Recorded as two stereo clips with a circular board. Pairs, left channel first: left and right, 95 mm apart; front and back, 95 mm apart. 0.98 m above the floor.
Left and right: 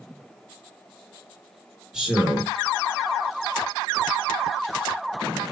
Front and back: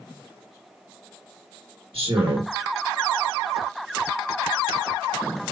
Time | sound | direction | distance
1.9 | a man speaking | 175° right | 1.5 m